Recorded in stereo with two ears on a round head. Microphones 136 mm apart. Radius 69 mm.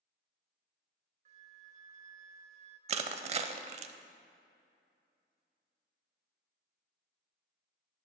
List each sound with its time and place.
1.2 s a flute: 45° right (ahead or behind), 0.8 m
2.9 s crushing: 45° right (ahead or behind), 0.6 m